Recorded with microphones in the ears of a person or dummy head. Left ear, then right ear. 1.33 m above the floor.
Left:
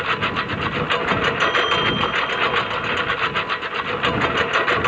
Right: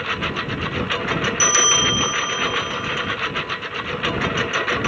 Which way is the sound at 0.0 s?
20° left (ahead or behind).